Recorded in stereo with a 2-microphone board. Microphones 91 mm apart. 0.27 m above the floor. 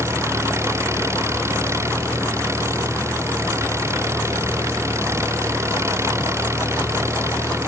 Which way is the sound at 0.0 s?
30° right (ahead or behind).